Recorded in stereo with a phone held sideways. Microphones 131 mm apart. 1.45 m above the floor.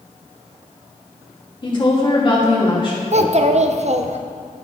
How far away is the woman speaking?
About 2.5 m.